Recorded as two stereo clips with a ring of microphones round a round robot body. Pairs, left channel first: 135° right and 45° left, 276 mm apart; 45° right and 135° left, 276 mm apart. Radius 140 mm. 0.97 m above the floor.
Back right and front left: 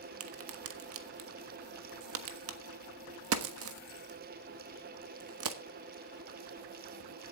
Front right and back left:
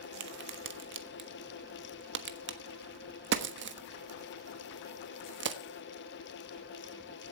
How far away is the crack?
About 1.4 m.